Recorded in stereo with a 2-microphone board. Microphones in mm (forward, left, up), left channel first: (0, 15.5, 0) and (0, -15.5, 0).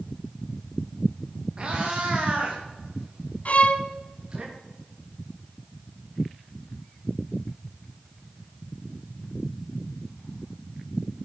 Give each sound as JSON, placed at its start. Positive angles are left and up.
{"t": 1.6, "sound": "a cat meowing", "side_deg": -30, "distance_m": 6.0}
{"t": 3.5, "sound": "a violin", "side_deg": 50, "distance_m": 1.4}